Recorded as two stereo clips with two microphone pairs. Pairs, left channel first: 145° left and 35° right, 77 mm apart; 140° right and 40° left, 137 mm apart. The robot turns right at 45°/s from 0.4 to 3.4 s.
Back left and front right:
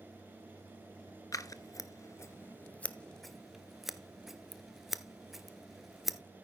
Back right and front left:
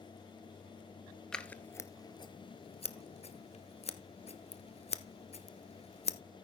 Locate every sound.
1.3 s scissors: 135° left, 0.7 m; by 6.2 s 130° right, 0.7 m